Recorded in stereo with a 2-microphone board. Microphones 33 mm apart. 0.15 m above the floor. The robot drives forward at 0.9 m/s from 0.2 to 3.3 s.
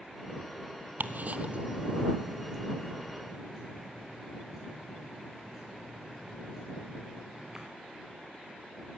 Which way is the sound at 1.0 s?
75° right (ahead or behind).